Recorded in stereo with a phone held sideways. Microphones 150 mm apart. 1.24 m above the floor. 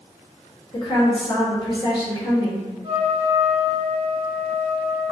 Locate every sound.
0.7 s a woman speaking: 35° left (ahead or behind), 1.5 m
2.8 s a trumpet: 30° right (ahead or behind), 1.7 m